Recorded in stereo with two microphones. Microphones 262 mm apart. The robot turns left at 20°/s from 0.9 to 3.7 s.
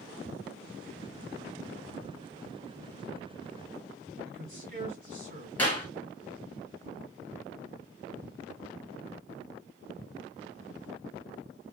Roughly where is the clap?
Centre.